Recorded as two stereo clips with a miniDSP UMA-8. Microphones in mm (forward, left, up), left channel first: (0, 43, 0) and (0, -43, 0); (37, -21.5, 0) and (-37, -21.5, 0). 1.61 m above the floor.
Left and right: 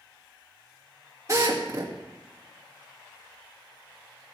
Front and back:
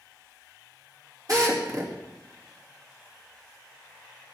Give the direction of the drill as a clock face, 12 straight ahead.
5 o'clock.